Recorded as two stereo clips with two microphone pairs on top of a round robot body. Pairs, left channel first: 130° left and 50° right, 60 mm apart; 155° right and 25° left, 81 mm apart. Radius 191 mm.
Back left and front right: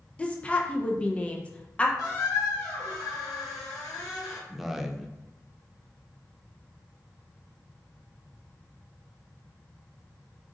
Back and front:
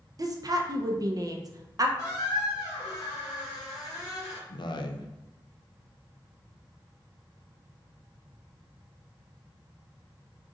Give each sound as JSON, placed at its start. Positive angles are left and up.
{"t": 0.2, "sound": "a woman speaking", "azimuth_deg": 65, "distance_m": 0.6}
{"t": 2.0, "sound": "a squeak", "azimuth_deg": 150, "distance_m": 1.8}
{"t": 4.5, "sound": "a man speaking", "azimuth_deg": -130, "distance_m": 0.7}